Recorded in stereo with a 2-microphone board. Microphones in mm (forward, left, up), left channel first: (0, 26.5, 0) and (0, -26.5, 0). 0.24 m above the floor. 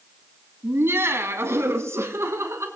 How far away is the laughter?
About 2.5 m.